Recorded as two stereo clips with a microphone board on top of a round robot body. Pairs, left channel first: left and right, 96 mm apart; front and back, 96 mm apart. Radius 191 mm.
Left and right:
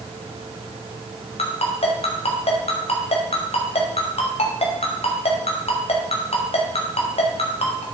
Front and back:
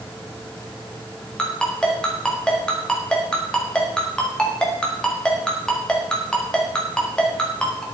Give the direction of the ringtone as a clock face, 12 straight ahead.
9 o'clock.